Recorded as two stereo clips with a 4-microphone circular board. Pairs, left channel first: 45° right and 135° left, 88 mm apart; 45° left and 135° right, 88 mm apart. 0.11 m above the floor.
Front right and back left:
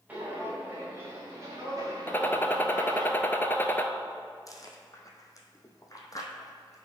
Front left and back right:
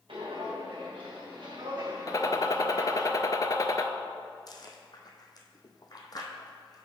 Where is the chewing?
5° left, 1.0 m.